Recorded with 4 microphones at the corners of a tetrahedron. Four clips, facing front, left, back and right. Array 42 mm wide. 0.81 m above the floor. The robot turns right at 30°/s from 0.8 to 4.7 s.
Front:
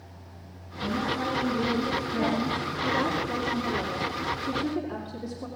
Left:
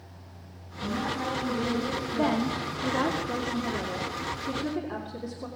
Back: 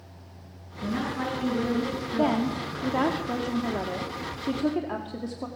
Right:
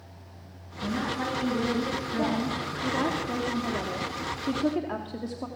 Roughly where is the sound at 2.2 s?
Behind left.